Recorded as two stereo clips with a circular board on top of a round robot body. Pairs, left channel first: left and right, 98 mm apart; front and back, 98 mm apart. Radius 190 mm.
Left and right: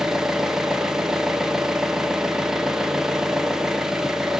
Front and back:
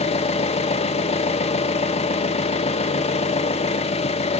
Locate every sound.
0.0 s an engine running: 5° right, 0.8 m